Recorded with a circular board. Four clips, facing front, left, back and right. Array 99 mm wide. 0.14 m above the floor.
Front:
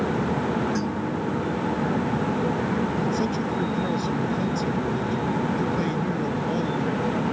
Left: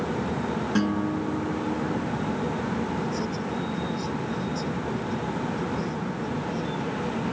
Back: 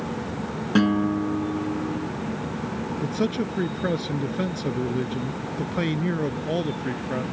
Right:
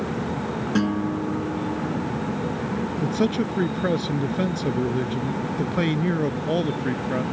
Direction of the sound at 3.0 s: 115° right.